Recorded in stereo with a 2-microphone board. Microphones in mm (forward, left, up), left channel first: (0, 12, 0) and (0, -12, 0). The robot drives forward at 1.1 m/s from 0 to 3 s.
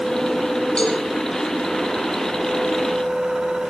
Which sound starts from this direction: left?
A cowbell, at 0.8 s.